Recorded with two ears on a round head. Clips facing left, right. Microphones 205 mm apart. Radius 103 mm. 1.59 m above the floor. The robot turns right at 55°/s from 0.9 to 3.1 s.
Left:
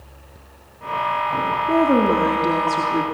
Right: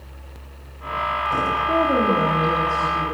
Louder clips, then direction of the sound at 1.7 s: Left 4 dB; 25° left.